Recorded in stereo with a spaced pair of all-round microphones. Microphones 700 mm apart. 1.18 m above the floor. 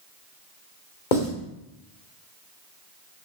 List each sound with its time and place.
1.1 s writing: 85° left, 2.5 m